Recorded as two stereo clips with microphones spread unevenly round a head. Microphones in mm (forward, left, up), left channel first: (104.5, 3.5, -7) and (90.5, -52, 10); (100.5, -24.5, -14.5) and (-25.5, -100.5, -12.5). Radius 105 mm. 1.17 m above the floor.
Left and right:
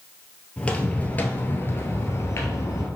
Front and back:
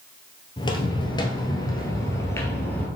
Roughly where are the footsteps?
Ahead.